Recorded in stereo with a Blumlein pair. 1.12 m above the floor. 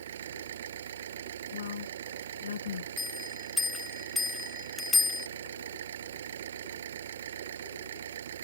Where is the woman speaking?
60° left.